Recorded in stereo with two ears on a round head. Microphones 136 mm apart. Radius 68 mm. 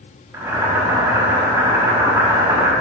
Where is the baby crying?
I don't hear a baby crying.